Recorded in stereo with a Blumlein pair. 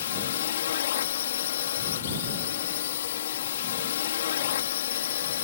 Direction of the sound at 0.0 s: 60° left.